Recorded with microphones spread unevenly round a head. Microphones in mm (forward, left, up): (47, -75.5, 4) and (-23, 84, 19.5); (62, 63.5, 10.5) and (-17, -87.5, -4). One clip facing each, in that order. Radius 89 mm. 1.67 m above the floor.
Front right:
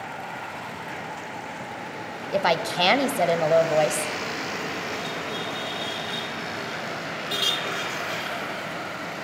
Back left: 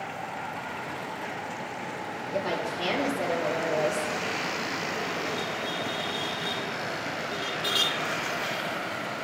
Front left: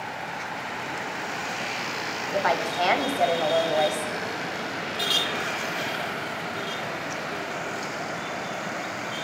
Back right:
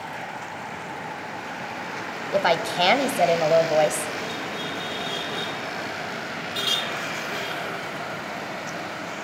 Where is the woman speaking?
65° right, 0.8 m.